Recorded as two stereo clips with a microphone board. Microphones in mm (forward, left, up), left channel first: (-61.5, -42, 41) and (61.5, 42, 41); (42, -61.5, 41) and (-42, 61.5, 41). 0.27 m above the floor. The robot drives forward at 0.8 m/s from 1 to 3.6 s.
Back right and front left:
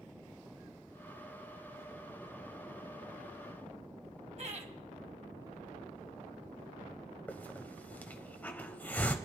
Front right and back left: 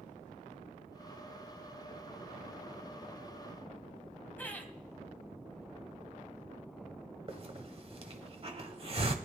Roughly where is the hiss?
Behind left.